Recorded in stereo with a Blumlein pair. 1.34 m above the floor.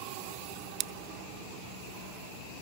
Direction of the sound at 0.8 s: 35° right.